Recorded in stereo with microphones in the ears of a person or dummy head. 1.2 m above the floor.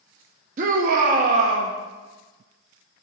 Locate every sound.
0.6 s a shout: 35° right (ahead or behind), 0.5 m